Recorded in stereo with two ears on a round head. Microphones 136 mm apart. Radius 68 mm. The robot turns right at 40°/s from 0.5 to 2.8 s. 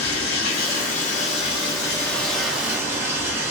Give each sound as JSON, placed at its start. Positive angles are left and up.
{"t": 0.0, "sound": "running water", "azimuth_deg": 105, "distance_m": 1.3}